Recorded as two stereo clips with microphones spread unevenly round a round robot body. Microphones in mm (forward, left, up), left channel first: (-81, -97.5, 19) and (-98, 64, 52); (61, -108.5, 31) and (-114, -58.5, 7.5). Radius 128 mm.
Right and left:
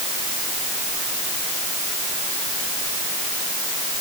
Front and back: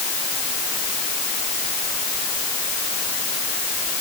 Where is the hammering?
I don't hear hammering.